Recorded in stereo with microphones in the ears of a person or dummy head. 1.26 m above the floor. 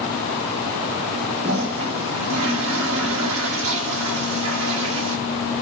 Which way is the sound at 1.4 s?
85° right.